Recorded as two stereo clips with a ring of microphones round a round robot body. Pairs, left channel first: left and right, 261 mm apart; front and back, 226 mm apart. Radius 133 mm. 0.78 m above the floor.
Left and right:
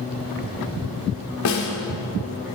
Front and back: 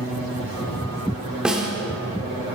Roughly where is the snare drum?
Left.